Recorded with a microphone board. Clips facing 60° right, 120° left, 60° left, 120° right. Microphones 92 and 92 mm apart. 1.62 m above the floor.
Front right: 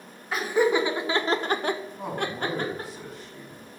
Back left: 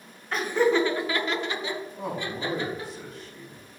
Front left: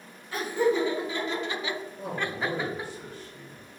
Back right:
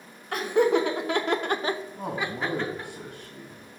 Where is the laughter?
145° right, 1.4 m; by 2.9 s 15° right, 1.3 m.